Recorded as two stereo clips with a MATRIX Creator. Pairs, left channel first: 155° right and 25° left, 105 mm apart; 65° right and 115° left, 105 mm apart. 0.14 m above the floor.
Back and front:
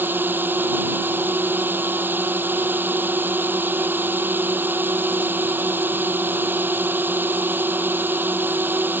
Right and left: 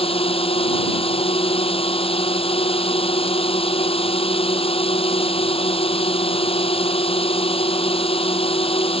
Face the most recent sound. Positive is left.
turn(degrees=-50)